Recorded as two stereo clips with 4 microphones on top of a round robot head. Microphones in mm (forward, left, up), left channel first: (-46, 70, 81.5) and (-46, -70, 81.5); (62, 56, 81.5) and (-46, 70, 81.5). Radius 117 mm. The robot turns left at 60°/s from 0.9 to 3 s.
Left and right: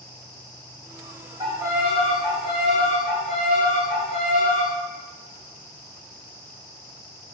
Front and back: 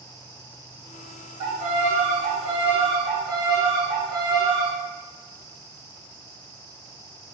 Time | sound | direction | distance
1.4 | a violin | 150° right | 0.8 m